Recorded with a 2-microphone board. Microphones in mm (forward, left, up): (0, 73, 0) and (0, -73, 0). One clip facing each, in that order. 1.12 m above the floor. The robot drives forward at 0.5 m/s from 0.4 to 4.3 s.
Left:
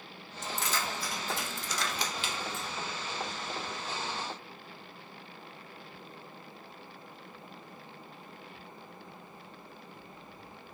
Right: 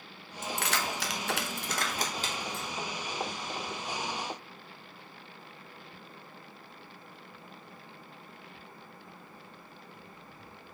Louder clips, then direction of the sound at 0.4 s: Right 2 dB; 55° right (ahead or behind).